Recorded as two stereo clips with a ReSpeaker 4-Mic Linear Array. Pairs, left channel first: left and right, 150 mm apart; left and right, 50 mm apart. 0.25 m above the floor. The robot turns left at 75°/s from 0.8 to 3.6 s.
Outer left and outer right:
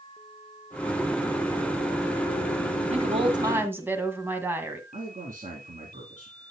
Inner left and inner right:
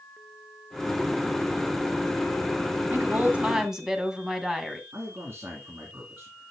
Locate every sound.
2.9 s a woman speaking: 110° right, 1.8 m; by 4.8 s 165° right, 1.8 m
4.9 s a man speaking: 55° right (ahead or behind), 3 m